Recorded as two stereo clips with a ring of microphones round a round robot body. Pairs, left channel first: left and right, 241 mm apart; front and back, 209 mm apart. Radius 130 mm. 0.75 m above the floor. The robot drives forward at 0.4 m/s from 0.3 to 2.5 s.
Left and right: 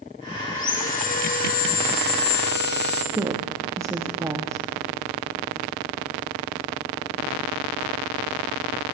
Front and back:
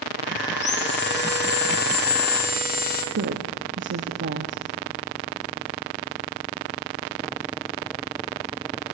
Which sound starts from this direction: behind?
A woman speaking, at 3.1 s.